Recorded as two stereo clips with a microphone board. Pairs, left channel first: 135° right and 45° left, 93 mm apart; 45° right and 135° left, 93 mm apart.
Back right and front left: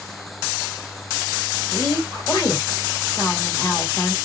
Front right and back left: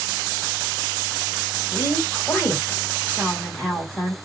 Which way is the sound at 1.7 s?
105° right.